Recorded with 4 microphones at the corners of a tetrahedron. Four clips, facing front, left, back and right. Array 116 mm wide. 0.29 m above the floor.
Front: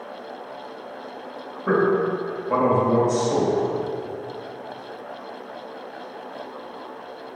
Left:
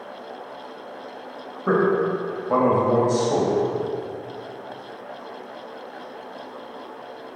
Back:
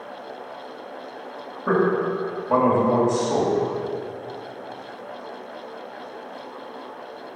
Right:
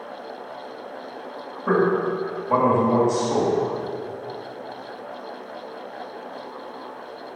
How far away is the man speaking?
About 1.4 m.